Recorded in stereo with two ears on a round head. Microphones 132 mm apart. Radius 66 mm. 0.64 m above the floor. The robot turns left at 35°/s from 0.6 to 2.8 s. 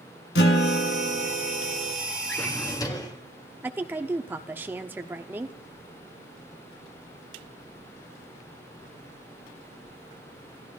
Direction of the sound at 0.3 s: 85° left.